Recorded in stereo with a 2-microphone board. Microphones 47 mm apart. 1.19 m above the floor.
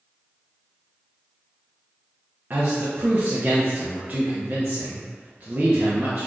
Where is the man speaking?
40° right (ahead or behind), 0.6 m.